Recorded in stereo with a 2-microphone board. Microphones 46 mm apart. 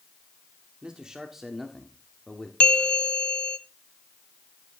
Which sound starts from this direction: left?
A bell, at 2.6 s.